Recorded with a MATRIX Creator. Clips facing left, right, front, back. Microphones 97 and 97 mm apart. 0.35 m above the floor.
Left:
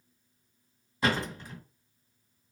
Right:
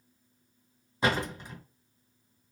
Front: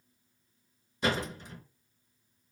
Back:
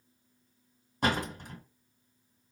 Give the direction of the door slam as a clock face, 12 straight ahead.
5 o'clock.